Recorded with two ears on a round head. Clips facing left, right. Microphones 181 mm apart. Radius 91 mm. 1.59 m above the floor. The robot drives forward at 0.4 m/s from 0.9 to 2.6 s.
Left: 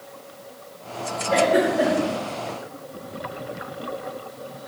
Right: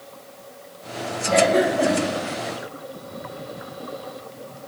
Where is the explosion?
No explosion in this recording.